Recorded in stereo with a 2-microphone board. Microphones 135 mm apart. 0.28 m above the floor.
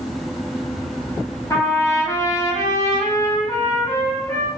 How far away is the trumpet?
About 1.0 m.